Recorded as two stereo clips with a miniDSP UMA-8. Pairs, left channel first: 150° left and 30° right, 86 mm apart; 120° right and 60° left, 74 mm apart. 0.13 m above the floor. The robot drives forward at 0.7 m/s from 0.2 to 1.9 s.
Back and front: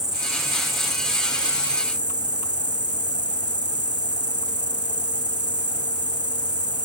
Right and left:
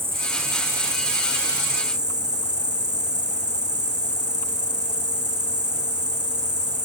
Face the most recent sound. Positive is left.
turn(degrees=120)